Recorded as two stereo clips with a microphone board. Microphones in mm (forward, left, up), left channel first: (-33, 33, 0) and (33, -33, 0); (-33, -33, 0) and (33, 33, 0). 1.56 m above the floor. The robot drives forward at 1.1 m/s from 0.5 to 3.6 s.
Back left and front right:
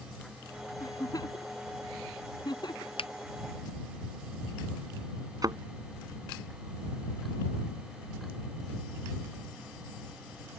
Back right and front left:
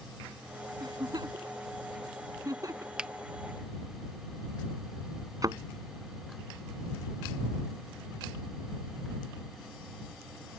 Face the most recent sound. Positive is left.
turn(degrees=0)